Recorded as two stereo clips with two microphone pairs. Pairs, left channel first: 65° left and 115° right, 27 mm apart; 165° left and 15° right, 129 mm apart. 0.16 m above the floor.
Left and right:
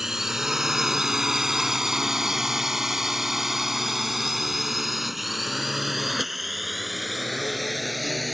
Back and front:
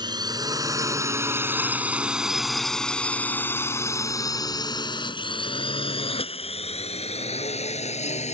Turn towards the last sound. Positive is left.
turn(degrees=155)